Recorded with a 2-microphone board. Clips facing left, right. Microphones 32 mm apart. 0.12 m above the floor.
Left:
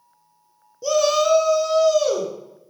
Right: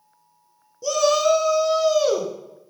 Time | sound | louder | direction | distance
0.8 | a shout | left 1 dB | 10° left (ahead or behind) | 1.2 m